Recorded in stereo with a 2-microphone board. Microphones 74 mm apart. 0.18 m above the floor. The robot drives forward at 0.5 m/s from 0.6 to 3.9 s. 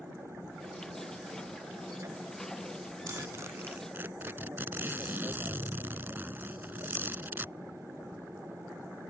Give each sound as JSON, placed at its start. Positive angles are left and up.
{"t": 0.0, "sound": "an aircraft", "side_deg": -35}
{"t": 3.1, "sound": "a zipper", "side_deg": -45}